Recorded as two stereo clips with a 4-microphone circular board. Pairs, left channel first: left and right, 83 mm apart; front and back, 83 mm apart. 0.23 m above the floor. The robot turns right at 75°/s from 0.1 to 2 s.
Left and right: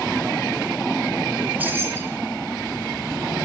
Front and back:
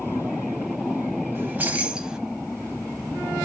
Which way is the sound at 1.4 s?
155° right.